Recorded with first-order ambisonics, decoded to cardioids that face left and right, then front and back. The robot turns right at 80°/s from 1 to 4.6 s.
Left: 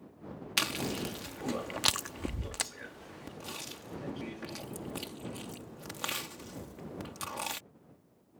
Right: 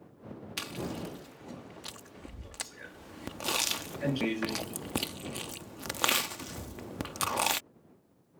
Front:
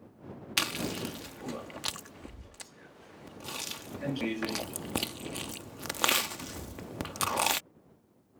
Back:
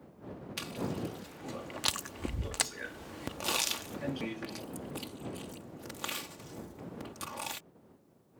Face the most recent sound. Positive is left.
turn(degrees=-40)